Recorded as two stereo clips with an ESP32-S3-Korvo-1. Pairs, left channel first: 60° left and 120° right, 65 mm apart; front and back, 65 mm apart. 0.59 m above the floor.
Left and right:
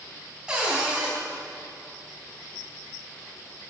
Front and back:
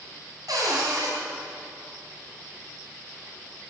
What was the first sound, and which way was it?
A cupboard door, 165° left.